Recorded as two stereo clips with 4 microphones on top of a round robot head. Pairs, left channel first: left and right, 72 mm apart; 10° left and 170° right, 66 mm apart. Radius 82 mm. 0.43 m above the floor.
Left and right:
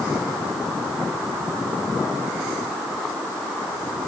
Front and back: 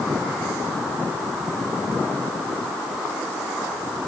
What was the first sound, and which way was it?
Only background noise.